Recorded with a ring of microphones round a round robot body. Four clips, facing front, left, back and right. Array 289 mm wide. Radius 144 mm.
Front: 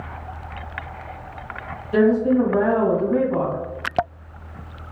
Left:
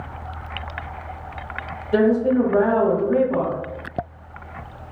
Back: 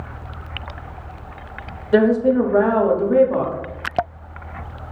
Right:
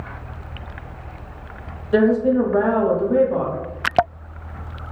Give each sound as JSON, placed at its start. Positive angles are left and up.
{"t": 1.9, "sound": "a woman speaking", "azimuth_deg": 180, "distance_m": 1.1}